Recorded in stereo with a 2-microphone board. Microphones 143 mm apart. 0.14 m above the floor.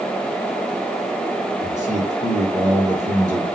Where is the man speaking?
55° right (ahead or behind), 2 m.